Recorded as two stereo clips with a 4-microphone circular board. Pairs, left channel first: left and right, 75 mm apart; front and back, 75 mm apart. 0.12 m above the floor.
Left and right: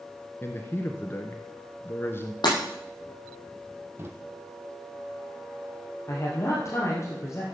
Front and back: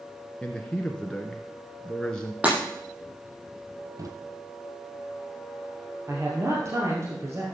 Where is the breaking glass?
110° left, 9.5 m.